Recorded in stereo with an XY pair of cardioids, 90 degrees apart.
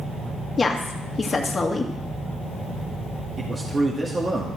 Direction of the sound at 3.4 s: 30° right.